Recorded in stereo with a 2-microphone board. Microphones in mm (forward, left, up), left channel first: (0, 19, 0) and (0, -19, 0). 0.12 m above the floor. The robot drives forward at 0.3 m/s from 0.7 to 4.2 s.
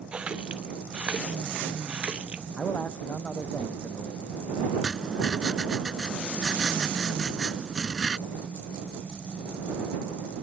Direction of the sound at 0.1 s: 30° right (ahead or behind).